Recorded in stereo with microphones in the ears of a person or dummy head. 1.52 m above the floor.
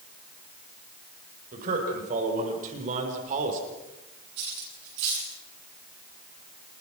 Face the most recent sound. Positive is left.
turn(degrees=-75)  # may be behind; listen again after turning